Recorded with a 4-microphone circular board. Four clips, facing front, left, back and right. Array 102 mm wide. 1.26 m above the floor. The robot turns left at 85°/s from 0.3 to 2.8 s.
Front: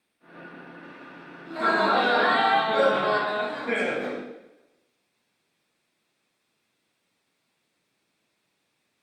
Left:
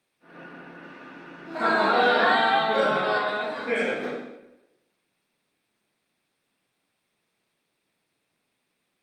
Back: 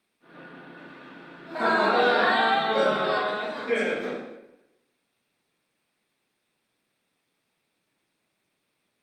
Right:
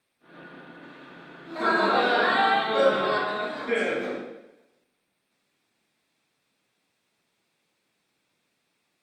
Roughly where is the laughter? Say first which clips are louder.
Left 1 dB, even; behind.